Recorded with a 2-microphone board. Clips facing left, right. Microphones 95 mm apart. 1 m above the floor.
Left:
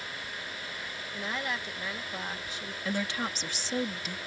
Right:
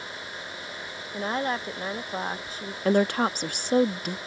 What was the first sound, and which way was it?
A woman speaking, 40° right (ahead or behind).